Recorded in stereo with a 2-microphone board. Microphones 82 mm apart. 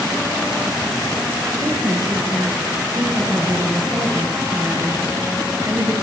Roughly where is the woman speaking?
Right.